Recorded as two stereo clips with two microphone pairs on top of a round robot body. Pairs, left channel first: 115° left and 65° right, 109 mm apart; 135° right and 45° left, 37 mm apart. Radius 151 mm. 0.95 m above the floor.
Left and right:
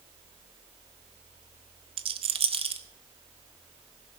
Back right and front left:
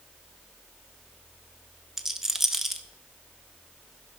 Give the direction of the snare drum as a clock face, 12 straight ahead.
No snare drum in this recording.